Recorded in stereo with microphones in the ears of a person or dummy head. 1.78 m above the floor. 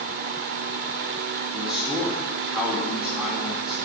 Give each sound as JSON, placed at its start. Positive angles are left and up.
{"t": 1.5, "sound": "a man speaking", "side_deg": -5, "distance_m": 1.3}